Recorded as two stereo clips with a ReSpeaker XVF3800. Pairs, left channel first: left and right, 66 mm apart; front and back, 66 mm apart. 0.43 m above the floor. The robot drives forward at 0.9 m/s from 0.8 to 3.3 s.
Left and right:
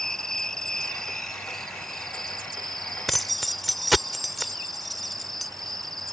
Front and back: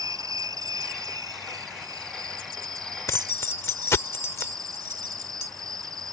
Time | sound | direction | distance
0.0 | an insect | 170° left | ?
3.1 | keys jangling | straight ahead | ?